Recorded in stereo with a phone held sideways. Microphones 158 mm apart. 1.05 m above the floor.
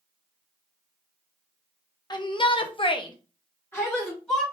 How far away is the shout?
About 0.7 m.